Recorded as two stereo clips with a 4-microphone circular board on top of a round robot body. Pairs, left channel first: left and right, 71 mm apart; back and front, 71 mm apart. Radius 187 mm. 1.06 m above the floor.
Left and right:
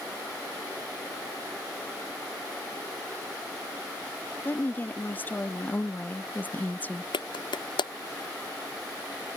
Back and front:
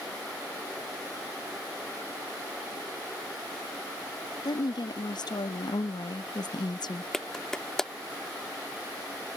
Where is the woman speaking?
155° left; by 7.1 s 160° left.